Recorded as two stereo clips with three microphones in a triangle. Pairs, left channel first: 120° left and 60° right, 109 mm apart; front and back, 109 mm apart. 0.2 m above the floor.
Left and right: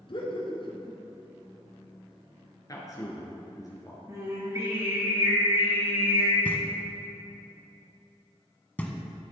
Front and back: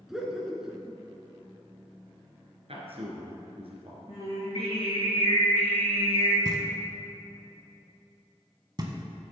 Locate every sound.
0.1 s laughter: 95° left, 2 m
2.7 s a man speaking: 170° left, 2.5 m
4.1 s singing: 5° right, 3.5 m
6.5 s knocking: 170° right, 1.1 m